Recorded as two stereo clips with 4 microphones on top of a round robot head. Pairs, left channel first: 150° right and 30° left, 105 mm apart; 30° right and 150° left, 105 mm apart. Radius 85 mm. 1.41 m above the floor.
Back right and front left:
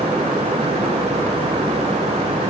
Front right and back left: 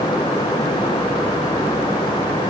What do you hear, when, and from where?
Only background noise.